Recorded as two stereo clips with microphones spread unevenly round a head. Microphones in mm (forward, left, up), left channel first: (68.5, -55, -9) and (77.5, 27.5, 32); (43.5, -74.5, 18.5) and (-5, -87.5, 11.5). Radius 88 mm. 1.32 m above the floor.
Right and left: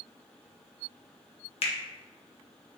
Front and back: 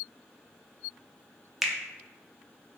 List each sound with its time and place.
1.6 s a finger snap: 80° right, 0.6 m